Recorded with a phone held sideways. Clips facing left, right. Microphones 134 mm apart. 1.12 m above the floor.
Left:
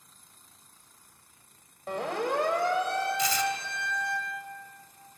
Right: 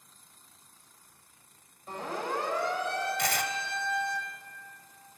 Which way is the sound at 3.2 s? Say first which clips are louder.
Left 3 dB; 65° right (ahead or behind).